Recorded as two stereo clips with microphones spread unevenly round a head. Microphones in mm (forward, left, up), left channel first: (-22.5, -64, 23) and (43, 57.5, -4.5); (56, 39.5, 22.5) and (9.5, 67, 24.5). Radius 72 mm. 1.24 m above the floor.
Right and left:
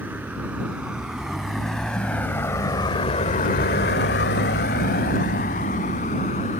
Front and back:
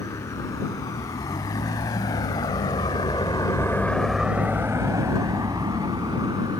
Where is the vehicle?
20° right; by 6.6 s 160° right.